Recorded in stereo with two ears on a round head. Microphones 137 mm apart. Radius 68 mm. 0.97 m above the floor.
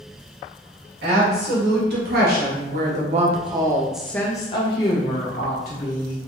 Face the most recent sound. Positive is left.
turn(degrees=65)  # may be behind; listen again after turning